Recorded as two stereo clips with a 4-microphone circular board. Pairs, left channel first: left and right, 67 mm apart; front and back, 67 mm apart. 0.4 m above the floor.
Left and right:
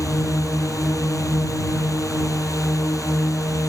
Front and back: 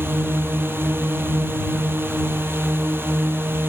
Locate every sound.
0.0 s a drone: 125° left